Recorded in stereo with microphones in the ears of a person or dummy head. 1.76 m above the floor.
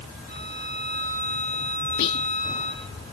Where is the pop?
I don't hear a pop.